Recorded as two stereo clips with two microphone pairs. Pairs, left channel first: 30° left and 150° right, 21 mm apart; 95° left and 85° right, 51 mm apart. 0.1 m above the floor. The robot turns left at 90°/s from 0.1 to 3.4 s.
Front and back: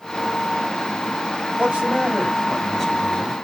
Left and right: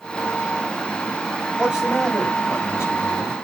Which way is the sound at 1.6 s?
150° right.